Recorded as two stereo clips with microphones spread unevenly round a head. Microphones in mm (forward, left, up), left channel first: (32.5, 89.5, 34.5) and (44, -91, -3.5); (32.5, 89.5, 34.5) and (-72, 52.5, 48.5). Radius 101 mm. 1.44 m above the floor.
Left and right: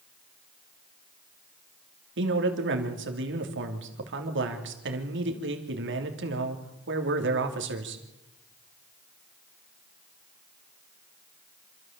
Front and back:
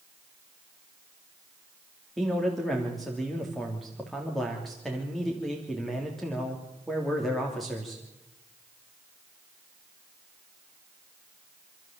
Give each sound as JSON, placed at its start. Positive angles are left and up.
{"t": 2.2, "sound": "a man speaking", "azimuth_deg": -70, "distance_m": 3.0}